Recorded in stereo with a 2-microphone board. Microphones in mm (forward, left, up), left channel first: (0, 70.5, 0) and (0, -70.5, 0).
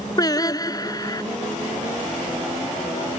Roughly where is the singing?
Left.